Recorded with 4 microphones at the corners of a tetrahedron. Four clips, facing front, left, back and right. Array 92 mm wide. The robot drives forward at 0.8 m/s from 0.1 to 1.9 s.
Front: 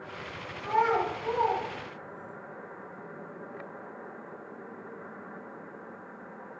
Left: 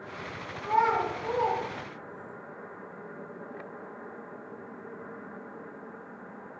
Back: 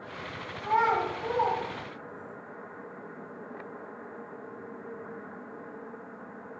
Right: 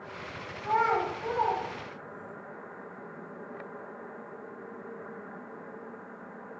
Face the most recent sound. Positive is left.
turn(degrees=-160)